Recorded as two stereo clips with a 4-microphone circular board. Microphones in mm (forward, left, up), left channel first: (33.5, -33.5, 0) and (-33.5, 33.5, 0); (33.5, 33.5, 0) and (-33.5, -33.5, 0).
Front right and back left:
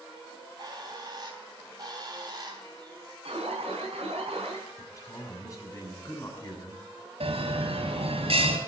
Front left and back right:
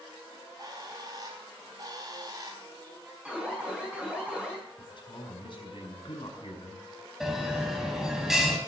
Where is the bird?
Straight behind, 4 m.